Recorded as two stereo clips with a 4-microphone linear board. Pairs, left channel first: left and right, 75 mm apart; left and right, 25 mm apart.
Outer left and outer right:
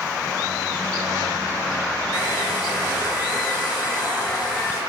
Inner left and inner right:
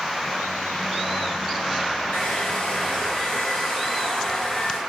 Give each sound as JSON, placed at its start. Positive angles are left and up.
{"t": 2.1, "sound": "a hair dryer", "side_deg": 65, "distance_m": 5.0}